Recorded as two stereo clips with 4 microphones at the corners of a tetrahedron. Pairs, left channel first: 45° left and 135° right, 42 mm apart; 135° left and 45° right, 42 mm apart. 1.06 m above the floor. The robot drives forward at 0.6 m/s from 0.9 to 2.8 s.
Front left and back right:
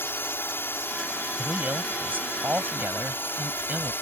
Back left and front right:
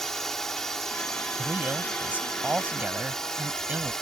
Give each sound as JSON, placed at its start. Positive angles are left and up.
{"t": 0.0, "sound": "a drone", "azimuth_deg": 55}
{"t": 1.4, "sound": "a man speaking", "azimuth_deg": -90}